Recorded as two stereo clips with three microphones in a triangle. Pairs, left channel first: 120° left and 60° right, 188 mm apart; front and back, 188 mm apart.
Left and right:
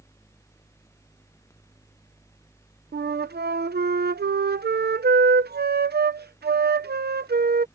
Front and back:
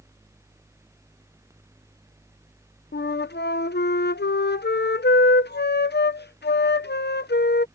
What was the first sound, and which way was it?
A flute, 30° right.